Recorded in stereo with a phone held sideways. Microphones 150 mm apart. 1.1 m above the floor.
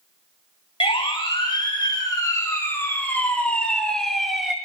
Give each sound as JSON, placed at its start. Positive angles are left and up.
{"t": 0.8, "sound": "a siren", "side_deg": 35, "distance_m": 4.0}